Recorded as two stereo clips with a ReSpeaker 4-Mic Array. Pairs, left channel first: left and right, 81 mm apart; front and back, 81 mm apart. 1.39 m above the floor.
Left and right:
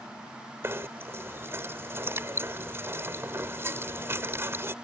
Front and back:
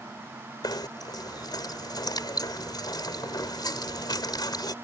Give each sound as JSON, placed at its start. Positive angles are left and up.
{"t": 0.6, "sound": "knocking", "azimuth_deg": -30}